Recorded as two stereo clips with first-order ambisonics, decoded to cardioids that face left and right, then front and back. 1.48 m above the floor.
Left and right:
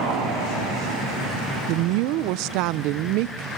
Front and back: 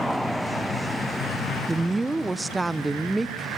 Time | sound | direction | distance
1.7 | a woman speaking | 95° right | 0.5 m